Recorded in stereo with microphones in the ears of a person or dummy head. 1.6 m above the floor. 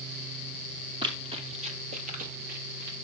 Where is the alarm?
No alarm in this recording.